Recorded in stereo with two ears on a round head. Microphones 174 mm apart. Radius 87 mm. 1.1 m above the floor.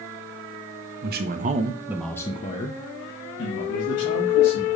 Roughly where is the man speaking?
Right.